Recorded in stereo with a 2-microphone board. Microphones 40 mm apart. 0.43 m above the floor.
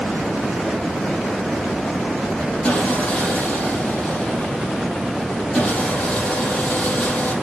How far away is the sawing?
About 4 m.